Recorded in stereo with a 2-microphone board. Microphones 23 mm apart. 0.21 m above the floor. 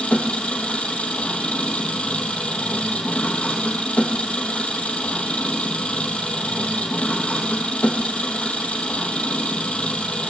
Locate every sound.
0.0 s an engine running: 65° left (ahead or behind), 2.5 m